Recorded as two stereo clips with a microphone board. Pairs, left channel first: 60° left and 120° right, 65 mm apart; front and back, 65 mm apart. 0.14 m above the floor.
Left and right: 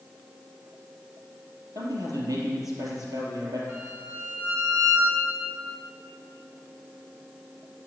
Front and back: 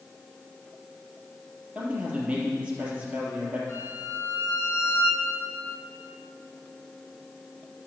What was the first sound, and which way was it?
A man speaking, 110° right.